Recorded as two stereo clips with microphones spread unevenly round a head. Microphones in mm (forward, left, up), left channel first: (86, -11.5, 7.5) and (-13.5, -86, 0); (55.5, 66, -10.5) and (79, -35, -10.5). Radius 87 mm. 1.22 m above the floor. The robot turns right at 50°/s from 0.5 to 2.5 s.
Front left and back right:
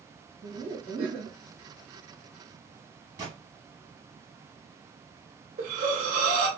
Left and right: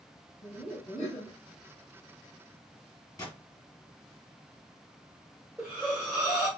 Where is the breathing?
160° right, 1.1 m.